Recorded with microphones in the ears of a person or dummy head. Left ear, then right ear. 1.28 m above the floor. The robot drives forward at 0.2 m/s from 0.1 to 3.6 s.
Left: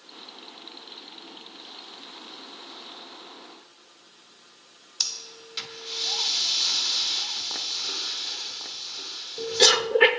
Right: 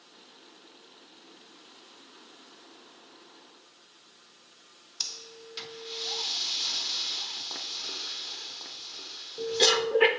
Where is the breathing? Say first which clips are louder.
Left 6 dB; 5° left (ahead or behind), 0.6 m.